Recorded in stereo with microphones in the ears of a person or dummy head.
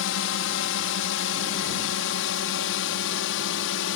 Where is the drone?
70° left (ahead or behind).